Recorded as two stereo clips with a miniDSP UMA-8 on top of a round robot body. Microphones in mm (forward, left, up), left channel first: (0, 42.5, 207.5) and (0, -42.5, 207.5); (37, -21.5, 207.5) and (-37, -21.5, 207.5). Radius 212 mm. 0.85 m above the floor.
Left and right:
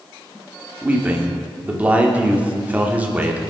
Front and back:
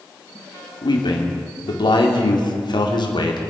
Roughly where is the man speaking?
Ahead.